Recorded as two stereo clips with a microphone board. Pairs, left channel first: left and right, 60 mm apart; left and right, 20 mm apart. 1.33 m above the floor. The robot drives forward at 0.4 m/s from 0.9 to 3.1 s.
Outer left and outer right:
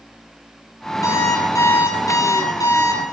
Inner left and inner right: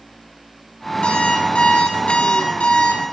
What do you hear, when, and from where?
1.0 s an alarm clock: 70° left (ahead or behind), 8 m; by 3.0 s 75° left (ahead or behind), 7.5 m